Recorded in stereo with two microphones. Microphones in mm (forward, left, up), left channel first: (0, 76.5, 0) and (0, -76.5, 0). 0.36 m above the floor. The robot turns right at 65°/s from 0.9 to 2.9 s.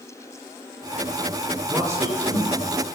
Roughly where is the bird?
I don't hear a bird.